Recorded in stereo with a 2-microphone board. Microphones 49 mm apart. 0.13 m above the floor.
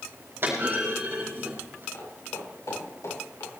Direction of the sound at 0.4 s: 45° right (ahead or behind).